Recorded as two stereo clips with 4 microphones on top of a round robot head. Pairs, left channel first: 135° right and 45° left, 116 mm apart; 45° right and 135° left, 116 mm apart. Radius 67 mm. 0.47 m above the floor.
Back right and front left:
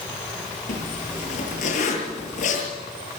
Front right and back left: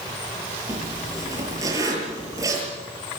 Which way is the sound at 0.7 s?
160° right.